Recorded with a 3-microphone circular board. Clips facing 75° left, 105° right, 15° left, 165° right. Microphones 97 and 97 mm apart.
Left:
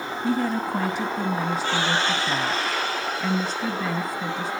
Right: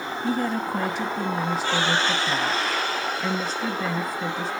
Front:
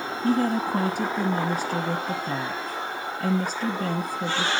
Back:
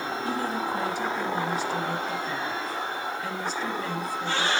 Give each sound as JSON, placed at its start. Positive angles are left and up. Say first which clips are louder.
{"t": 0.2, "sound": "a woman speaking", "louder": "left 1 dB, front 8 dB", "azimuth_deg": -10, "distance_m": 1.1}